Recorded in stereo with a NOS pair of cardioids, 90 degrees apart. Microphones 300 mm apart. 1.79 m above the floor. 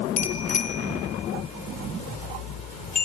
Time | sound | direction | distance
0.2 | a bicycle bell | 70° left | 4.5 m